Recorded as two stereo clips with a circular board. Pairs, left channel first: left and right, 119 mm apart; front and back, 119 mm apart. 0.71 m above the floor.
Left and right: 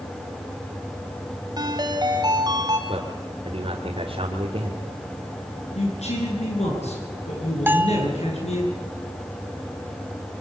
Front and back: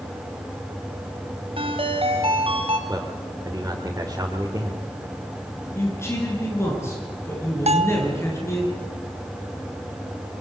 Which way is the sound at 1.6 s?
145° right.